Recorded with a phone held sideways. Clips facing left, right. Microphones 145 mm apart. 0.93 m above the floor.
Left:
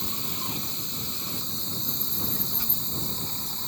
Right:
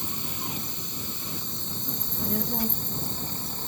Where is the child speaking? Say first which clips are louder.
Right 9 dB; 65° right (ahead or behind).